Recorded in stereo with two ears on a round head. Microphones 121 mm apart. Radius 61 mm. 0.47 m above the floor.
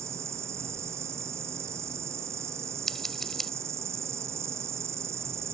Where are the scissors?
5° left (ahead or behind).